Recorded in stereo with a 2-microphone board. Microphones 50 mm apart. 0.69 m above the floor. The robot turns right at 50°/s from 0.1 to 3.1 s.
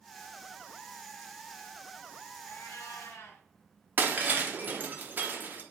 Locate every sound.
2.4 s a cat meowing: 75° left, 0.7 m; by 3.4 s 105° left, 0.7 m
4.0 s breaking glass: 40° right (ahead or behind), 0.7 m